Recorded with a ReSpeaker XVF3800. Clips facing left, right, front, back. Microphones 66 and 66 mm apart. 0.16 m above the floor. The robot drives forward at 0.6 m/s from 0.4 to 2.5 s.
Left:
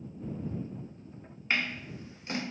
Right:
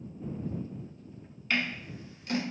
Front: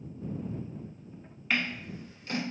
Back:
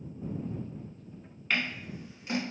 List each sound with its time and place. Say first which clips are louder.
1.5 s scissors: even, front 1 dB; 75° left, 1.1 m; by 2.4 s 130° left, 1.2 m